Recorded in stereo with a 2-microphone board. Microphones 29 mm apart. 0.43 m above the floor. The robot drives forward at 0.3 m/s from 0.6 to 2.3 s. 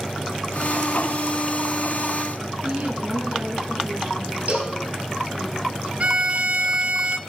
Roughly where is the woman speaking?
Right.